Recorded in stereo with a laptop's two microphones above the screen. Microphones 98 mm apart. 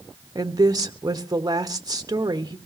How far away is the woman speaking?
About 1.4 m.